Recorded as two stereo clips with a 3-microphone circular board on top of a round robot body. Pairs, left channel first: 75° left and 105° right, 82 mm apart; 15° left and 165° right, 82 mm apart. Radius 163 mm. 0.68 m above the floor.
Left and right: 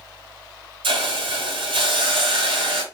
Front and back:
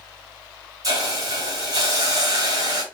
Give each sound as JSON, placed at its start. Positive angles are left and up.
{"t": 0.8, "sound": "a hiss", "azimuth_deg": -115, "distance_m": 1.6}